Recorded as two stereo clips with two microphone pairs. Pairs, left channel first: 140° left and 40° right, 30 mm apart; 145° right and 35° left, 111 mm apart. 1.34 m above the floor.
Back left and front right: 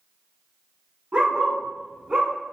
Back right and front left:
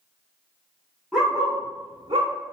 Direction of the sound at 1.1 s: 50° right.